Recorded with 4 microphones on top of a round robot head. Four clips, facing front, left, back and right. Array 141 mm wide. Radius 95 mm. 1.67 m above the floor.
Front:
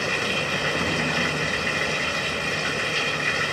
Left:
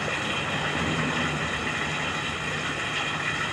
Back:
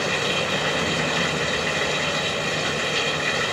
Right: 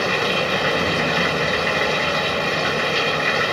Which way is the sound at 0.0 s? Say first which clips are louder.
Right 9 dB, back 2 dB; 105° right.